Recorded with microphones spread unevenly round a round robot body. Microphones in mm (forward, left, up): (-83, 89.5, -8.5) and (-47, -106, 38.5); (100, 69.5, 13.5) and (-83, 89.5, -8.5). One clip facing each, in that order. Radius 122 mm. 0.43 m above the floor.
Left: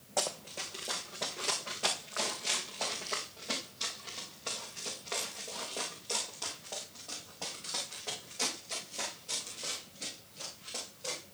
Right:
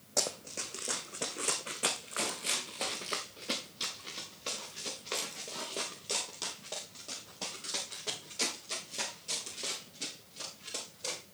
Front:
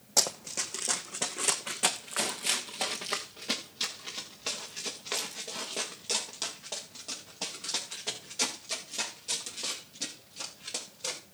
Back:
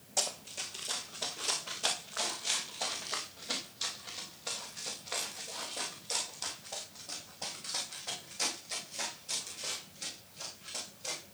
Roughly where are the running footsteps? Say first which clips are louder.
Left 1 dB, front 5 dB; ahead.